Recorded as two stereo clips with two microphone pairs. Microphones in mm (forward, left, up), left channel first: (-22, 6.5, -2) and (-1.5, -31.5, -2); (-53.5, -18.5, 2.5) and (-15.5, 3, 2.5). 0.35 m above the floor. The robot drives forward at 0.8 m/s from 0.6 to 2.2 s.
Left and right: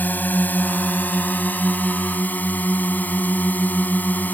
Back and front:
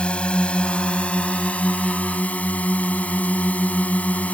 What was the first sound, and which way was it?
A drone, 150° left.